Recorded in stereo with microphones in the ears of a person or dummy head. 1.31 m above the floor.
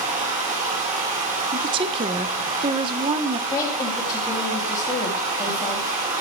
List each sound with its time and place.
0.0 s running water: 30° right (ahead or behind), 0.9 m
1.5 s a woman speaking: 25° right (ahead or behind), 0.5 m
3.5 s a woman speaking: 20° left (ahead or behind), 2.5 m